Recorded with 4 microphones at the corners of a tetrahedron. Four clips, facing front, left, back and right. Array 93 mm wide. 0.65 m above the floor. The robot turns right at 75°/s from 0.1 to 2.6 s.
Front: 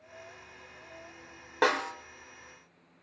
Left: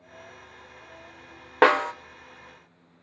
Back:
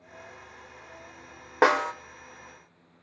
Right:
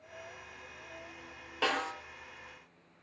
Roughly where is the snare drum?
Left.